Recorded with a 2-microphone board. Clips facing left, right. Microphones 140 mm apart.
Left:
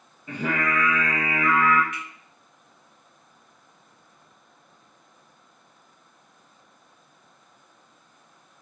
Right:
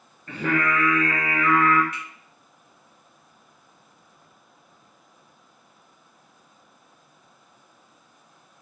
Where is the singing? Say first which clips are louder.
Right 2 dB; 15° left (ahead or behind), 1.2 m.